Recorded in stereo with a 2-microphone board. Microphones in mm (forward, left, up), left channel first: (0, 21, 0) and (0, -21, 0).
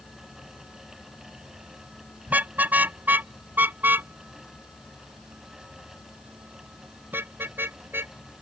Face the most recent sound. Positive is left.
turn(degrees=-60)  # may be behind; listen again after turning